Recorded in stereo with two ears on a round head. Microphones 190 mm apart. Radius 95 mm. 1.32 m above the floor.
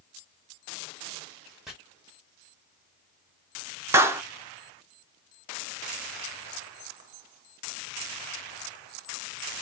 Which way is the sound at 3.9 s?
10° right (ahead or behind).